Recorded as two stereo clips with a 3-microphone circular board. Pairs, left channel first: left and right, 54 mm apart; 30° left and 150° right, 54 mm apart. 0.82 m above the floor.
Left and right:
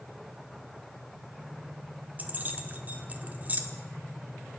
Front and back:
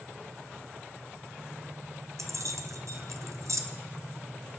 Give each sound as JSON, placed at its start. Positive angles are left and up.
{"t": 2.2, "sound": "keys jangling", "azimuth_deg": -150, "distance_m": 1.4}